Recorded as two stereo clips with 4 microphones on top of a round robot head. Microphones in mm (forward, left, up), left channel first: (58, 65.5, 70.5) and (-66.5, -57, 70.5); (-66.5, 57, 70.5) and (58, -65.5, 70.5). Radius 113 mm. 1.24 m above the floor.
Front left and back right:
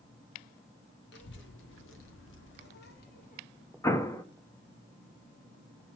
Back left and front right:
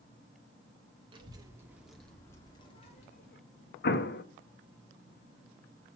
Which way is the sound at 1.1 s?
20° left.